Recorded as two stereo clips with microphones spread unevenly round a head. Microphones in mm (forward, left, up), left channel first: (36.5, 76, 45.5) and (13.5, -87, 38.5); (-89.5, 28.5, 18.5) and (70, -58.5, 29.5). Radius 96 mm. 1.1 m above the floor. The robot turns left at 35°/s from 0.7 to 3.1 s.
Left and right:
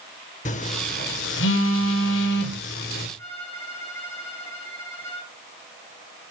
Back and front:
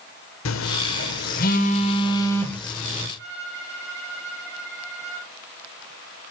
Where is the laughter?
I don't hear laughter.